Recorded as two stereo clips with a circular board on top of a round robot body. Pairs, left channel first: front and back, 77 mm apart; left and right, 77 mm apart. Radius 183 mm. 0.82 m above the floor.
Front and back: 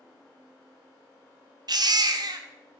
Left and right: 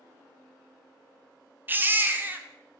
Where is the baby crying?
155° right, 0.7 m.